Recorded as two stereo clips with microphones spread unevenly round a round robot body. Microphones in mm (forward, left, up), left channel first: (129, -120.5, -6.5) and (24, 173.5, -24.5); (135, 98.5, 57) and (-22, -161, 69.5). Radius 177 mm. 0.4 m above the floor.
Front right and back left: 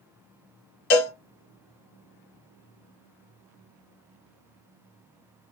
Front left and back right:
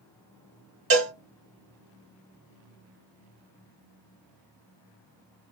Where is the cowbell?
75° right, 0.9 m.